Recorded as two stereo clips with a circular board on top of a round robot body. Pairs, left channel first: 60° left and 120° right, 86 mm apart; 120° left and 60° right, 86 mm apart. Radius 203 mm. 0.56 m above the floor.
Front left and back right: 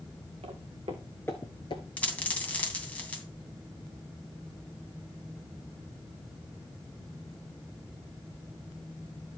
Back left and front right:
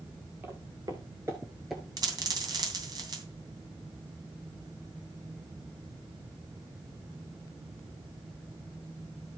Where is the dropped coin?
15° right, 2.5 m.